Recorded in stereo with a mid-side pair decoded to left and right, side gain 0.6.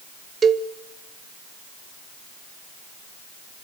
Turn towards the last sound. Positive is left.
turn(degrees=-35)